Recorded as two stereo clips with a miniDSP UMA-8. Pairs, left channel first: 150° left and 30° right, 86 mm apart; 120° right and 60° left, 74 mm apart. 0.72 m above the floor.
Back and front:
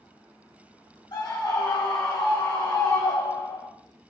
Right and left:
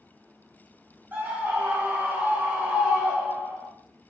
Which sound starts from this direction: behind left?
A scream, at 1.1 s.